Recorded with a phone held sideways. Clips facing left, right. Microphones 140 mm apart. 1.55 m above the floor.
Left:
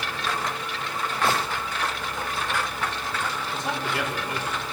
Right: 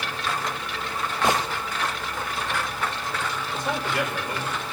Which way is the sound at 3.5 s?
25° left (ahead or behind).